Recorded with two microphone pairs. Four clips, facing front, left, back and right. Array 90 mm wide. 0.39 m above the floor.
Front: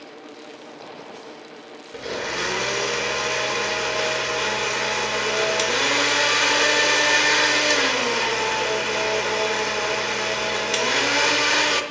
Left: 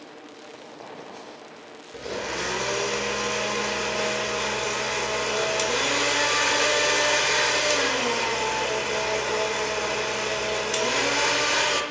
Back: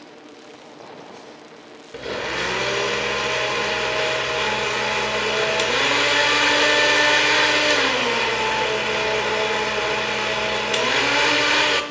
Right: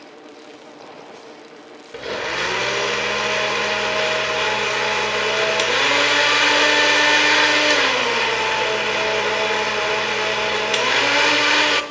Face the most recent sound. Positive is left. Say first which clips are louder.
# right 5 dB, back 1 dB
turn(degrees=-105)